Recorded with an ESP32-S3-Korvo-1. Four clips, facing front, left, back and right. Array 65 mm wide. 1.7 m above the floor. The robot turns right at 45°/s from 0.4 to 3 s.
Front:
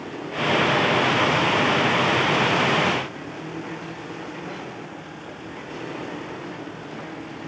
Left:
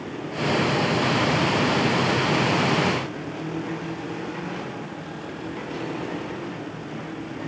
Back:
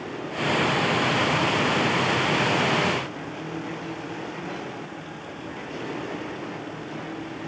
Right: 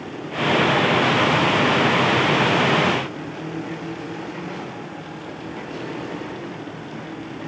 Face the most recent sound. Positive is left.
No sound to turn to.